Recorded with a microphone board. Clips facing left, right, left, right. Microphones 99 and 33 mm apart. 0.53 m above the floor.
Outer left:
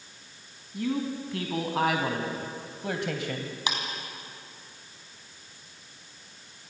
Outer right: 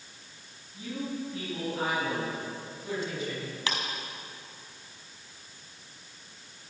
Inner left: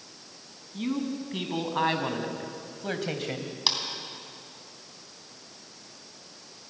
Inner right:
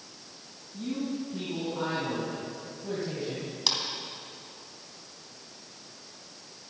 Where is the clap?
20° left (ahead or behind), 3.5 m.